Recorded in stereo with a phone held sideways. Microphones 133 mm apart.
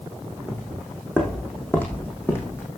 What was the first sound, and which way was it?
Footsteps, 10° left (ahead or behind).